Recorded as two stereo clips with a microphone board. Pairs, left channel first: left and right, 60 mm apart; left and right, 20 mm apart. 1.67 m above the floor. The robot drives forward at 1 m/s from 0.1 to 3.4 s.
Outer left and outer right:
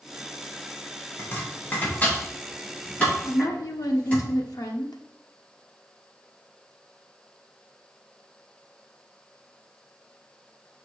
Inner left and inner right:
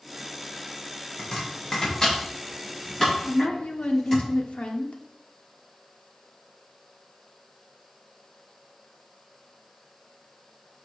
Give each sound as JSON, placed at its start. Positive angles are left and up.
{"t": 1.2, "sound": "chopping", "side_deg": 40, "distance_m": 2.5}
{"t": 3.2, "sound": "a woman speaking", "side_deg": 90, "distance_m": 1.2}